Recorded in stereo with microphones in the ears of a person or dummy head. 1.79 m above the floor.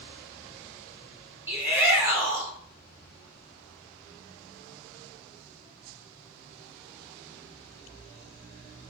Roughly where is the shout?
Centre.